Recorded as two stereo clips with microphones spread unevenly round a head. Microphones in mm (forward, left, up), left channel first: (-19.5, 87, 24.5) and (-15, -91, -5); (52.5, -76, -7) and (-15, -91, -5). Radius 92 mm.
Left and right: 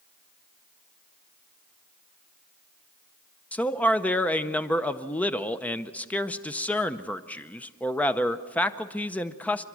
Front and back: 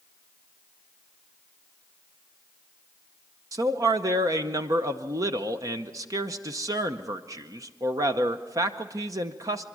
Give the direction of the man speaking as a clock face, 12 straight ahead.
6 o'clock.